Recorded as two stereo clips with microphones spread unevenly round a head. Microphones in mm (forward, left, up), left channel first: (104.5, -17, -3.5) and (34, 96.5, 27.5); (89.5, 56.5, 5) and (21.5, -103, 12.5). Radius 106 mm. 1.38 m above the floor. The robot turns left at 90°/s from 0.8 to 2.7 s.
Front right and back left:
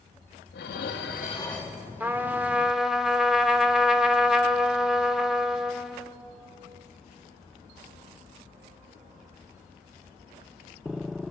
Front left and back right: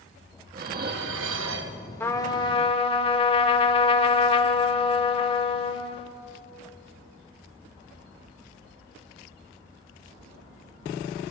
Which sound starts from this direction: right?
Dishes clattering, at 0.5 s.